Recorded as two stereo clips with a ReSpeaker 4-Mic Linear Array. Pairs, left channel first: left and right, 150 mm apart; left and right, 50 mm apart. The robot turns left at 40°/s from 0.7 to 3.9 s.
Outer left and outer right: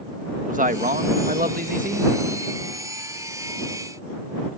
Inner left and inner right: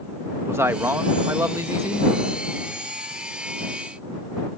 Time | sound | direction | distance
0.5 | a man speaking | 65° right | ?